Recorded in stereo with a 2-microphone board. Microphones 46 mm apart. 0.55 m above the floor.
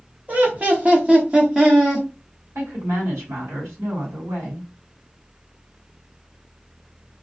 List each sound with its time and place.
0.3 s laughter: 30° right (ahead or behind), 1.2 m; by 2.1 s 10° right (ahead or behind), 1.3 m
2.5 s a woman speaking: 60° right (ahead or behind), 1.8 m